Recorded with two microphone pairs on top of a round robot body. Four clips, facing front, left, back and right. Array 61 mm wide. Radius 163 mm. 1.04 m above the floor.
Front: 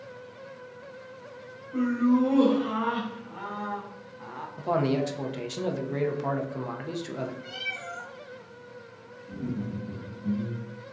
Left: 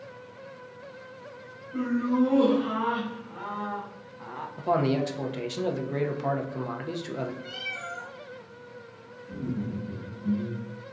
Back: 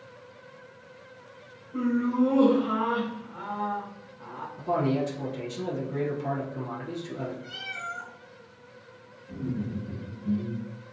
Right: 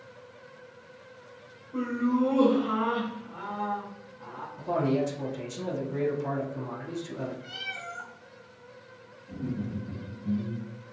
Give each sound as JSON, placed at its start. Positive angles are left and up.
{"t": 1.7, "sound": "laughter", "azimuth_deg": 5, "distance_m": 1.8}
{"t": 4.6, "sound": "a man speaking", "azimuth_deg": 50, "distance_m": 0.6}
{"t": 7.4, "sound": "a cat meowing", "azimuth_deg": -10, "distance_m": 1.1}
{"t": 9.3, "sound": "laughter", "azimuth_deg": 15, "distance_m": 1.5}